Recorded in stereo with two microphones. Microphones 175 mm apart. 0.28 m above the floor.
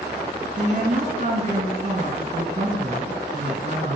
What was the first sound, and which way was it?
A woman speaking, 40° right (ahead or behind).